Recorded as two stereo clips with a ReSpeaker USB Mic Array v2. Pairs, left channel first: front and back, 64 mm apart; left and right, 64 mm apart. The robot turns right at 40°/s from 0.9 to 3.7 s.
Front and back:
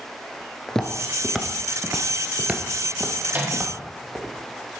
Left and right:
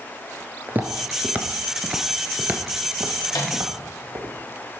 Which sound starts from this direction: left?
A microwave, at 3.3 s.